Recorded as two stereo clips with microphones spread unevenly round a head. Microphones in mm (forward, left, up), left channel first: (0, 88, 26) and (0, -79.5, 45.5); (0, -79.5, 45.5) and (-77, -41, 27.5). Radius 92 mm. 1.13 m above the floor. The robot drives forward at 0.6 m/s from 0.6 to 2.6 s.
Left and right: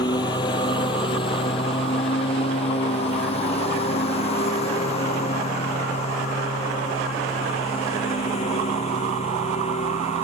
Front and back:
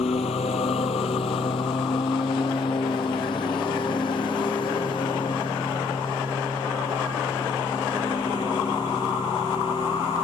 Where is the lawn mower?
20° left; by 10.2 s 35° left.